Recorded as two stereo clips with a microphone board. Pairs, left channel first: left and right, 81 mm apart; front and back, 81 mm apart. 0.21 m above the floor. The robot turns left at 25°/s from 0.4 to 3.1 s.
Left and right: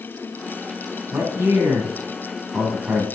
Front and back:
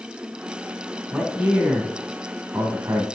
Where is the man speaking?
105° right, 2.0 m; by 3.0 s 150° right, 2.0 m.